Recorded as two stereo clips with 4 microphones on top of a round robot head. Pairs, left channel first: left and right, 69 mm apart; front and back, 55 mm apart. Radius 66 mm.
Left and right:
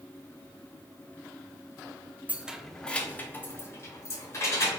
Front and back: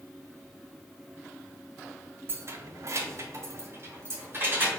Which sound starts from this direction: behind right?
Keys jangling, at 2.3 s.